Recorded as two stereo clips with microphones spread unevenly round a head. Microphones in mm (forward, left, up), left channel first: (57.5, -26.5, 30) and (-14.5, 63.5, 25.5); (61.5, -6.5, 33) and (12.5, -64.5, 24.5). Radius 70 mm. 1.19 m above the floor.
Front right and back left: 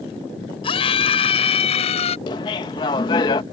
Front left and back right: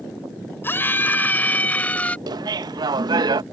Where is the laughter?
110° right.